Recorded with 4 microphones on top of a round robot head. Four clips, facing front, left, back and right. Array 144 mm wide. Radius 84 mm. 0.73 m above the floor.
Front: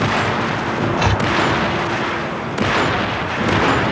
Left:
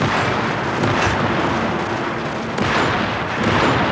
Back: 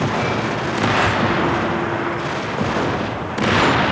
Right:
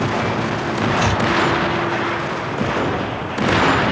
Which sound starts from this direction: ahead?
Chopping, at 1.0 s.